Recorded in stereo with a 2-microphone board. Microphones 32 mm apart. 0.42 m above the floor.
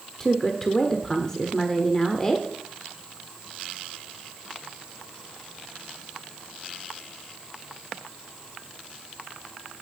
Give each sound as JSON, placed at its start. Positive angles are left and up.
{"t": 0.2, "sound": "a woman speaking", "side_deg": 15, "distance_m": 1.1}